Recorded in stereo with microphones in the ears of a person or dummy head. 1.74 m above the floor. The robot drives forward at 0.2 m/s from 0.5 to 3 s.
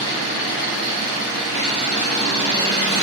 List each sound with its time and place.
0.0 s an engine running: 50° left (ahead or behind), 1.0 m; by 3.0 s 35° left (ahead or behind), 1.3 m